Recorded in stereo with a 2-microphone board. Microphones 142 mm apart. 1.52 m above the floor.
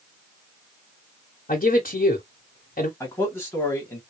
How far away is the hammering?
No hammering in this recording.